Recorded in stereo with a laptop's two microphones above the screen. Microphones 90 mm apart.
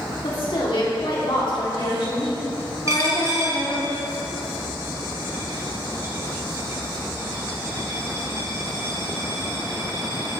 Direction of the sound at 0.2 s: 65° left (ahead or behind).